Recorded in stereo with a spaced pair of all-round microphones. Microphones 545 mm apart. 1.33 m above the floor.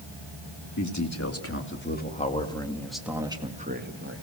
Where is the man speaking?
35° left (ahead or behind), 2.5 m; by 4.2 s 25° right (ahead or behind), 1.9 m.